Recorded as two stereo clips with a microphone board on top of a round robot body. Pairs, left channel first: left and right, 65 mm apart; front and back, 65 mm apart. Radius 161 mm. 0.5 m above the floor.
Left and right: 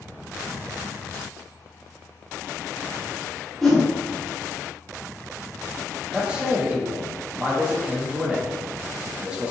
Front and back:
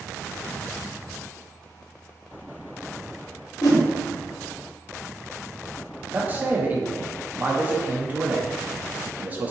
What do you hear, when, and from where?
3.6 s a whoosh: 5° left, 1.2 m
6.1 s a man speaking: 150° right, 0.7 m